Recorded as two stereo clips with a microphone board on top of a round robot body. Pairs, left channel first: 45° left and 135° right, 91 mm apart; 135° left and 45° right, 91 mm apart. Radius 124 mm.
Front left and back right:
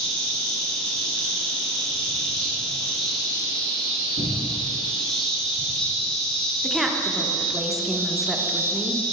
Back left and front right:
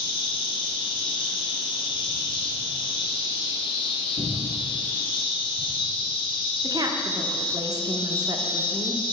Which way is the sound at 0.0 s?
125° left.